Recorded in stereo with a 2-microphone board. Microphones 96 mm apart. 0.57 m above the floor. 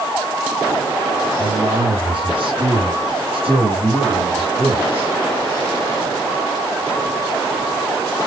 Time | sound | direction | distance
1.4 | a man speaking | 50° right (ahead or behind) | 4 m